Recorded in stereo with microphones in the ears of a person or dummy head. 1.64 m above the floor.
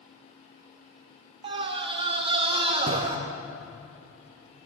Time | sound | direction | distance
1.4 | a scream | 35° right (ahead or behind) | 1.4 m